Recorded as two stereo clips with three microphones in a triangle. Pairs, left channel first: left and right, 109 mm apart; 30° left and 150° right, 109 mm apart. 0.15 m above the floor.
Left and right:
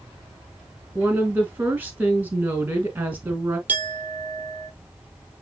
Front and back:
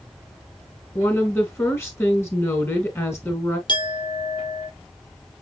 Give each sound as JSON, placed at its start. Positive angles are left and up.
{"t": 0.9, "sound": "a woman speaking", "azimuth_deg": -25, "distance_m": 1.6}
{"t": 3.7, "sound": "a clink", "azimuth_deg": -15, "distance_m": 3.0}